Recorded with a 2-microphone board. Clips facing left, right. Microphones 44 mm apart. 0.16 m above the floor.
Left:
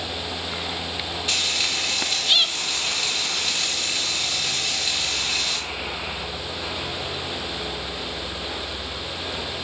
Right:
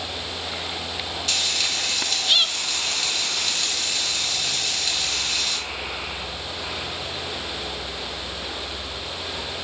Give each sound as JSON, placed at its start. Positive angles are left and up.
{"t": 1.3, "sound": "frying", "side_deg": 15, "distance_m": 1.0}